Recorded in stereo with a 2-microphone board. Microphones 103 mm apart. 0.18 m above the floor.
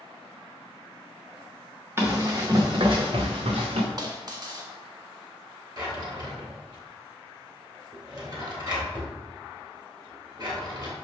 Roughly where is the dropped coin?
Right.